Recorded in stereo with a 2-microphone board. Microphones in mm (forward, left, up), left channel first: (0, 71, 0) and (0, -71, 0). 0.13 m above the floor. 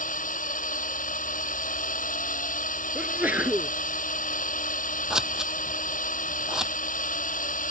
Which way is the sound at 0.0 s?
70° left (ahead or behind).